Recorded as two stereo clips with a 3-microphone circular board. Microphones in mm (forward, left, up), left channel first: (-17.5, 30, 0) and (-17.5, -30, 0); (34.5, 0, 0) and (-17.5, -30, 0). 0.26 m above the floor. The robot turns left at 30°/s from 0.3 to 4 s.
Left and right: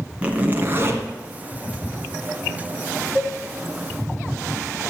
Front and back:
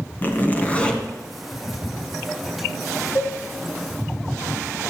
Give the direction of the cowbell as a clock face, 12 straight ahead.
1 o'clock.